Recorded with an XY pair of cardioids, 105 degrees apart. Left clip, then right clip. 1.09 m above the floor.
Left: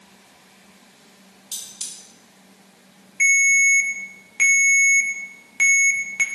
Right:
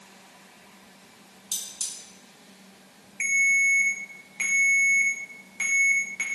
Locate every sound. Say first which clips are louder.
1.5 s cutlery clinking: even; 30° right, 1.0 m
3.2 s a ringtone: left 6 dB; 45° left, 0.5 m